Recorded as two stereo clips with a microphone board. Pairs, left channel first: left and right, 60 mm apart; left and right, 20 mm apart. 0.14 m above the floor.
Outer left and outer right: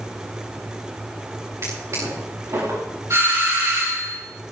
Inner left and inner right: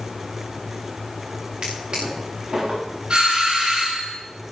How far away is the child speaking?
I don't hear a child speaking.